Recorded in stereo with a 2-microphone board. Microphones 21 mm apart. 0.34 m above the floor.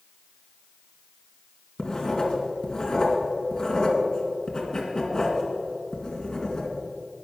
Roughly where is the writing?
Left.